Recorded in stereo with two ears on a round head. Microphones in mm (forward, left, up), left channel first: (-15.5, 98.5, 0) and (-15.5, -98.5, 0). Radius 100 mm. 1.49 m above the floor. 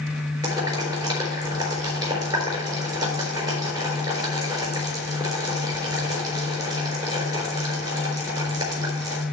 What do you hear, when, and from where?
0.4 s boiling: 20° right (ahead or behind), 3.5 m